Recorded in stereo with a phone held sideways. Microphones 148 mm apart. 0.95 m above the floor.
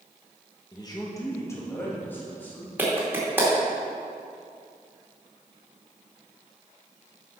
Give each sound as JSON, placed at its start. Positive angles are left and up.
{"t": 0.7, "sound": "a man speaking", "side_deg": 30, "distance_m": 1.1}
{"t": 2.8, "sound": "a clap", "side_deg": -15, "distance_m": 2.0}